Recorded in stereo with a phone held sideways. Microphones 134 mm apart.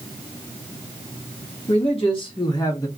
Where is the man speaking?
50° left (ahead or behind), 1.5 m; by 2.9 s 25° left (ahead or behind), 1.0 m.